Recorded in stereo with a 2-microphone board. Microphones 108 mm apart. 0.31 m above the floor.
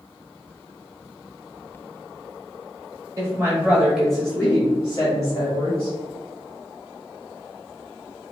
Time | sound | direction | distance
3.2 | a woman speaking | 30° right (ahead or behind) | 1.6 m